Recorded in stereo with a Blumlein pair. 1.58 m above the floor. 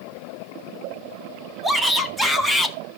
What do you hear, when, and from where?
1.6 s a shout: straight ahead, 2.5 m; by 2.8 s 10° left, 2 m